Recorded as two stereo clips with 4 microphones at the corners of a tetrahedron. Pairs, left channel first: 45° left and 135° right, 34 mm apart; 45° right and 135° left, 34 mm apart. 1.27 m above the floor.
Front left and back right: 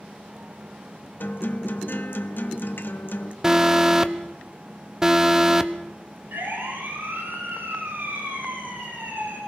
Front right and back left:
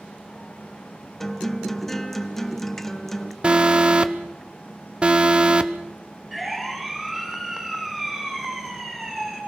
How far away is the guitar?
About 1.0 m.